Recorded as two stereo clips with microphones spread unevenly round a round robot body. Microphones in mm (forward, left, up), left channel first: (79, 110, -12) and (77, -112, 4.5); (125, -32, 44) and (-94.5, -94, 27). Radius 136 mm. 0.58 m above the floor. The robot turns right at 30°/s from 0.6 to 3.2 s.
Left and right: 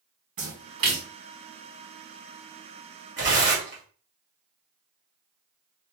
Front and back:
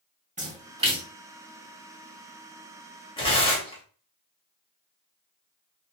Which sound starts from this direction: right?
A splash, at 0.4 s.